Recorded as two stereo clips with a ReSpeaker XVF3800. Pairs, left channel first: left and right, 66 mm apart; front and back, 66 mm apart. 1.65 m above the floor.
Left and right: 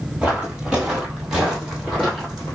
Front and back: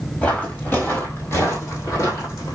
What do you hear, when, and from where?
0.2 s footsteps: 35° right, 1.8 m; by 2.6 s straight ahead, 2.5 m